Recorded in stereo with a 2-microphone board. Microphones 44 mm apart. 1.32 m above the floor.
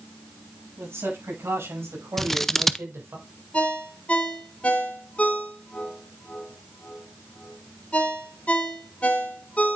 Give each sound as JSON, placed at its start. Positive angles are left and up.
{"t": 0.8, "sound": "a man speaking", "side_deg": -70, "distance_m": 8.0}
{"t": 2.2, "sound": "scissors", "side_deg": 5, "distance_m": 0.6}
{"t": 3.5, "sound": "a ringtone", "side_deg": 30, "distance_m": 3.5}